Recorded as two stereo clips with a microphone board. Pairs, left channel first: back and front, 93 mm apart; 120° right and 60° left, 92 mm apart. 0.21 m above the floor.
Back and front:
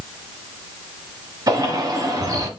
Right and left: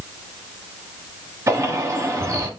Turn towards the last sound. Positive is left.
turn(degrees=20)